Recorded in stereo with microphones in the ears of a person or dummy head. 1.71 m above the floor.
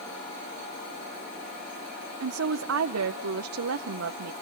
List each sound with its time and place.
2.2 s a woman speaking: 85° right, 0.7 m